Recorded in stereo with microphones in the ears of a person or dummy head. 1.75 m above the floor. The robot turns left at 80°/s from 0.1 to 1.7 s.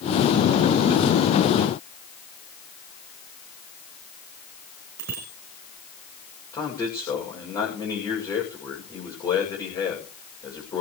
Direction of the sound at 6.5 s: 20° left (ahead or behind).